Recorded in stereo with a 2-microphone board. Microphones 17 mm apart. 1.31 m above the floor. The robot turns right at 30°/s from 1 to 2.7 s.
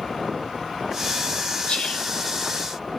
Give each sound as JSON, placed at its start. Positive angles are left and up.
{"t": 1.7, "sound": "whispering", "side_deg": 80, "distance_m": 2.5}